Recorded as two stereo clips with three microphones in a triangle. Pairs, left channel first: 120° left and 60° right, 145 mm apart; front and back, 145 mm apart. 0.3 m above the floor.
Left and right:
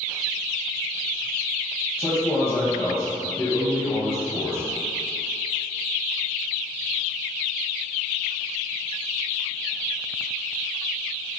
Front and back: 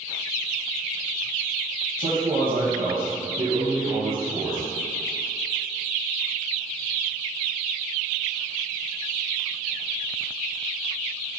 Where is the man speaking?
165° right, 1.8 m.